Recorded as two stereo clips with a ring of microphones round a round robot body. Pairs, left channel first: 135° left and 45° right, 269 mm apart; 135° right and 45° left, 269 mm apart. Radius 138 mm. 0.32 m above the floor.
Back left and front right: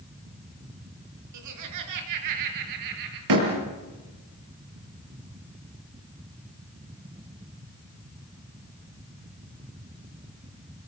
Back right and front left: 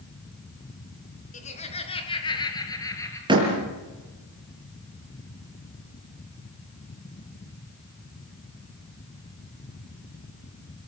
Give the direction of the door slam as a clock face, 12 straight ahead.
1 o'clock.